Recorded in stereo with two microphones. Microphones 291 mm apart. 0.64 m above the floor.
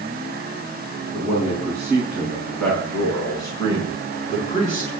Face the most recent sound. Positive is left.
turn(degrees=30)  # may be behind; listen again after turning